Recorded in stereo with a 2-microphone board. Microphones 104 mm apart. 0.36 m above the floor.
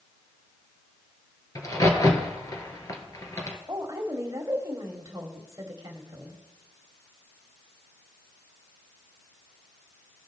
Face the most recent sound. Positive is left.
turn(degrees=-30)  # may be behind; listen again after turning